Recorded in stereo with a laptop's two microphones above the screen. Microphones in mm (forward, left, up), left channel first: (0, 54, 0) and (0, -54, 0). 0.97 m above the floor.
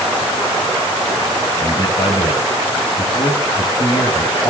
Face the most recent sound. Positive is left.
turn(degrees=45)  # may be behind; listen again after turning